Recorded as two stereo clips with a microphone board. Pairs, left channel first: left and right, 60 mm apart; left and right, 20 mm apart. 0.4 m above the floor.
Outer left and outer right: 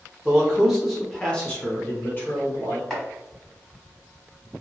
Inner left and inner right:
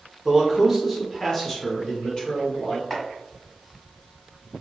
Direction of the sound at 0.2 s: 15° right (ahead or behind).